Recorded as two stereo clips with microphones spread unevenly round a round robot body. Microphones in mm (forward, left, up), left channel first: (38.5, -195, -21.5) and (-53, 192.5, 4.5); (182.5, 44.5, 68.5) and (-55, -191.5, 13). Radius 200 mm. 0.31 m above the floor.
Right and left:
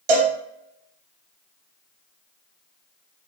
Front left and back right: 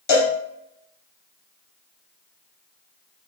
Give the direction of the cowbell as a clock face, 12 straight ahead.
9 o'clock.